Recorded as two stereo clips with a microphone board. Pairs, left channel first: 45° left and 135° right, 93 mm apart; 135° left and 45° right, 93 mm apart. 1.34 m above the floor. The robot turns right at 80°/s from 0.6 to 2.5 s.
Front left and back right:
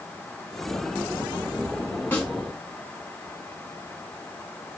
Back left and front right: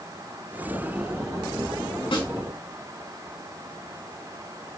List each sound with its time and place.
2.1 s a snare drum: 115° left, 4 m; by 2.3 s 130° left, 4 m